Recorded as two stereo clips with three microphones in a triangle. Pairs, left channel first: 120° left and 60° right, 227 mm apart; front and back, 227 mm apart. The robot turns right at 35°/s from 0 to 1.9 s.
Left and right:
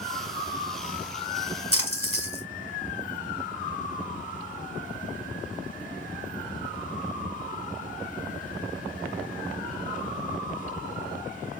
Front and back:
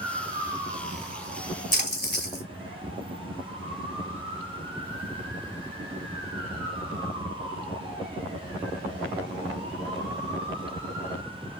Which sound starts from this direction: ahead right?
A splash, at 1.7 s.